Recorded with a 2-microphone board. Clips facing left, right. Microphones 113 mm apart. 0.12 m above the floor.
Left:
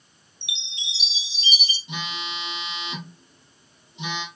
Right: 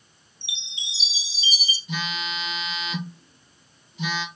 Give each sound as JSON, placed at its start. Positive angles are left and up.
{"t": 0.4, "sound": "a chime", "side_deg": 60, "distance_m": 2.0}
{"t": 1.9, "sound": "a phone buzzing", "side_deg": 25, "distance_m": 3.5}